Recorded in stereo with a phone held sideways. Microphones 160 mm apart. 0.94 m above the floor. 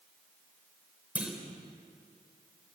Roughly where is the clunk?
Centre.